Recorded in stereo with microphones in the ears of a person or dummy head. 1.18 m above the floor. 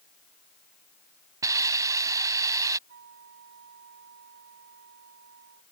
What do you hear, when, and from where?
1.4 s a hiss: 20° right (ahead or behind)
2.9 s a flute: 60° right (ahead or behind)